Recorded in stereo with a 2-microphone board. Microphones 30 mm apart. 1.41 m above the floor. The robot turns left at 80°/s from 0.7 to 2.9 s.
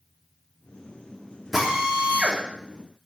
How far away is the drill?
About 3.5 m.